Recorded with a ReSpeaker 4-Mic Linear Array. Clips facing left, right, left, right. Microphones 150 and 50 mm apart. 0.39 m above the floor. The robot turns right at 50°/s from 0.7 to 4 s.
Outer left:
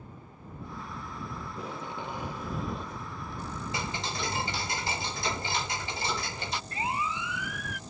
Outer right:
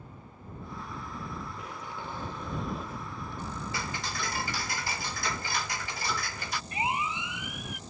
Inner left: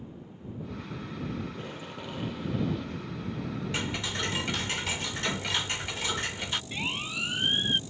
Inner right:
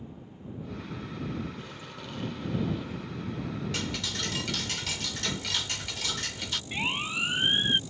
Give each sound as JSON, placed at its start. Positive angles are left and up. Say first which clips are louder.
{"t": 1.4, "sound": "tape being pulled", "louder": "outer left 3 dB, inner left 2 dB", "azimuth_deg": 120}
{"t": 3.7, "sound": "ticking", "louder": "outer left 4 dB, inner left 2 dB", "side_deg": 20}
{"t": 6.7, "sound": "a siren", "louder": "outer right 2 dB, inner right 2 dB", "side_deg": -20}